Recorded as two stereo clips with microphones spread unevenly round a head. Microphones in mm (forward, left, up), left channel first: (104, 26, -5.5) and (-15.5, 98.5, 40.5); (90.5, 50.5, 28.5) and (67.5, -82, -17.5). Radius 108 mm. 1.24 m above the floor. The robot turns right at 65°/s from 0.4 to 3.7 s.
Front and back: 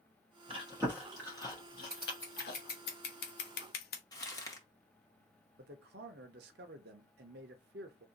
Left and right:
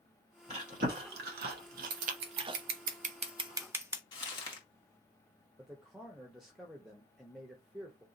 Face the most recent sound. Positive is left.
turn(degrees=170)